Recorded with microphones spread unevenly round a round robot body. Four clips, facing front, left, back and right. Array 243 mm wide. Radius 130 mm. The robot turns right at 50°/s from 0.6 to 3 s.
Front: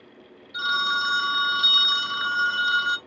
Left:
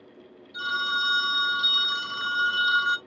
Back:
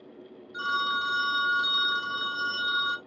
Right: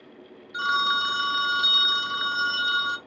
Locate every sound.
0.5 s a phone ringing: 70° right, 1.0 m; by 3.0 s 50° left, 1.0 m